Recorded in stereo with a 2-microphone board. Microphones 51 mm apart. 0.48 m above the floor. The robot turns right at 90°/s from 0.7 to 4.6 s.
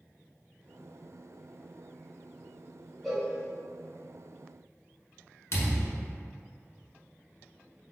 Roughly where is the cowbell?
Centre.